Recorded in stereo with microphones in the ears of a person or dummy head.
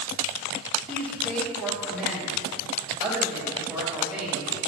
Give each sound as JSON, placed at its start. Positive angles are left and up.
{"t": 0.9, "sound": "a man speaking", "side_deg": 5, "distance_m": 2.5}